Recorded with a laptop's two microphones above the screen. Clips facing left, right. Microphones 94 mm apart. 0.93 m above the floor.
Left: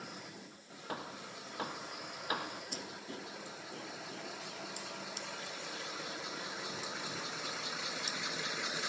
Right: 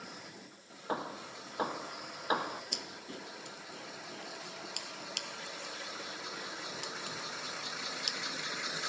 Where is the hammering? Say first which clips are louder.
Right 6 dB; 30° right (ahead or behind).